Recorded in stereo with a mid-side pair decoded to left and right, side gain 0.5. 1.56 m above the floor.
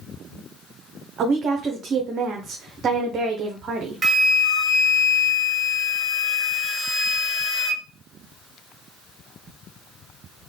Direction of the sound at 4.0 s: 30° right.